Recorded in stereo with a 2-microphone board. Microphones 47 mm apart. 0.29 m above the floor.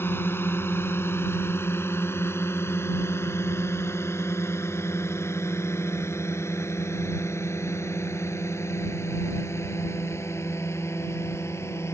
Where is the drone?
55° left (ahead or behind); by 11.9 s 75° left (ahead or behind).